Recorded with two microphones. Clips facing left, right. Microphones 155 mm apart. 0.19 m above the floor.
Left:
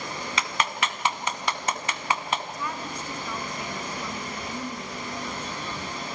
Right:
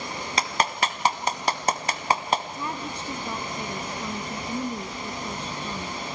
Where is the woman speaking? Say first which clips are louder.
Right 1 dB; 30° right (ahead or behind), 2 m.